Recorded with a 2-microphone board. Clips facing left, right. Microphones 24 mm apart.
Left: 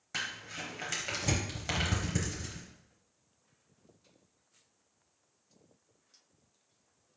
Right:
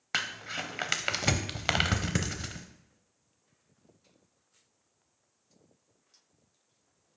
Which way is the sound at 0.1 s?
60° right (ahead or behind).